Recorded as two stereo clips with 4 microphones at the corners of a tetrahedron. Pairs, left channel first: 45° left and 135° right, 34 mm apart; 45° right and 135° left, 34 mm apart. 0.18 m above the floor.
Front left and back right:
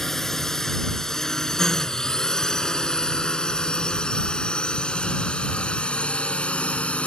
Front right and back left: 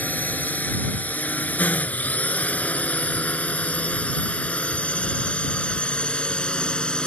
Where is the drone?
35° right; by 7.1 s 10° left.